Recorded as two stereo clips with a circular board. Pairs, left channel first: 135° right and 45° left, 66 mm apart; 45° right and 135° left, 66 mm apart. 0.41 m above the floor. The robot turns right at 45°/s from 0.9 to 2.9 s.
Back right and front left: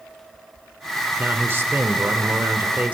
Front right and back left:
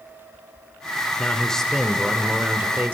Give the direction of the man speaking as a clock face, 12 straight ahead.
11 o'clock.